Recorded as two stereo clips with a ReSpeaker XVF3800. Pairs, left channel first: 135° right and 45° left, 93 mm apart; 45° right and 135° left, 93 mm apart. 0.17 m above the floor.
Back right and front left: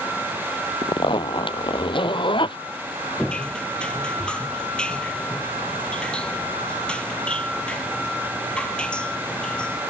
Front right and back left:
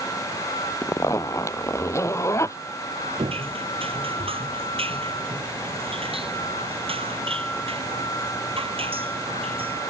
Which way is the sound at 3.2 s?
145° left.